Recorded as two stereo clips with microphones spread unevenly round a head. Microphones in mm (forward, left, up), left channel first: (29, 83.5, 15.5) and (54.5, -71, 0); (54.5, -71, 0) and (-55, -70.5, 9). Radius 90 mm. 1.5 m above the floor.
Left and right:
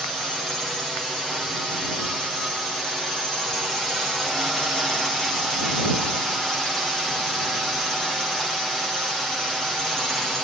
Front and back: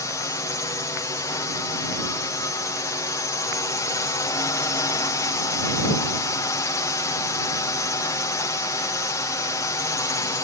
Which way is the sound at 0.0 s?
5° left.